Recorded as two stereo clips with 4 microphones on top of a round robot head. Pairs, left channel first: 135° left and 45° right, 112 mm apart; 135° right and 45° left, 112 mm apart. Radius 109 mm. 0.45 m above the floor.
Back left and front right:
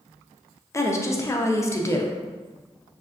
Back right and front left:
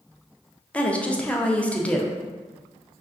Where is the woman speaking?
160° left, 0.8 m.